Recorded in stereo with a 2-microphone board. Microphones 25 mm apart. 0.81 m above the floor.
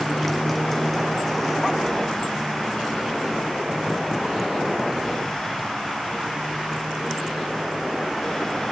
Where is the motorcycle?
10° left (ahead or behind); by 8.7 s 5° right (ahead or behind).